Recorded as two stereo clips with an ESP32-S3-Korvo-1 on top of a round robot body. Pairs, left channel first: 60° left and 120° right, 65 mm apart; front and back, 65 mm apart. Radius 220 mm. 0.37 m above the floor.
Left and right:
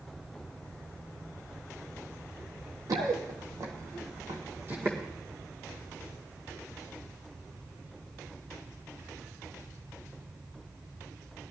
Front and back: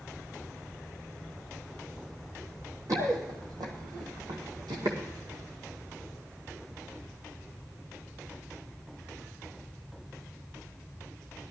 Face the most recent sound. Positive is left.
turn(degrees=-175)